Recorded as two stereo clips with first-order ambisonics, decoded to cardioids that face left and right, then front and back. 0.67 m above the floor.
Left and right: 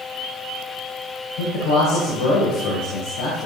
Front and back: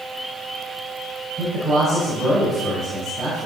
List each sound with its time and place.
1.4 s a man speaking: 100° left, 3 m